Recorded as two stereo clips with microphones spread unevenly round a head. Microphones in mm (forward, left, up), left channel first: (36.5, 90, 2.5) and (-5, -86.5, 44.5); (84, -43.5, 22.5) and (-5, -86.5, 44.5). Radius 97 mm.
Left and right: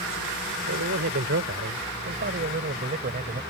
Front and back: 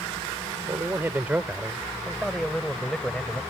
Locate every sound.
0.7 s a man speaking: 95° right; by 3.4 s 60° right